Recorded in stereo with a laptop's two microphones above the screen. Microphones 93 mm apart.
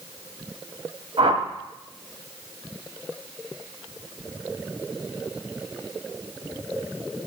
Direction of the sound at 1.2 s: 70° right (ahead or behind).